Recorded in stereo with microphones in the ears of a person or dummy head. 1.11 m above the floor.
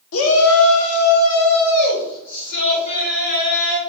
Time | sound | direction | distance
0.1 | a shout | 65° left (ahead or behind) | 0.6 m